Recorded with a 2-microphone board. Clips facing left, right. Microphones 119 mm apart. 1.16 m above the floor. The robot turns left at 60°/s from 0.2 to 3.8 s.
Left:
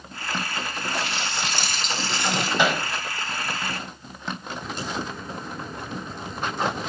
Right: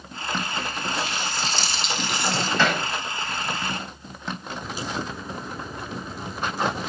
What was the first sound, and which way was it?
A running tap, 100° left.